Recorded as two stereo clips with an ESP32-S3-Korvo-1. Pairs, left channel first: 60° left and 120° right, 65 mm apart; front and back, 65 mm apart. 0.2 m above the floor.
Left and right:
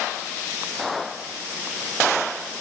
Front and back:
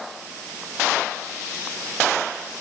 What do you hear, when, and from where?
Only background noise.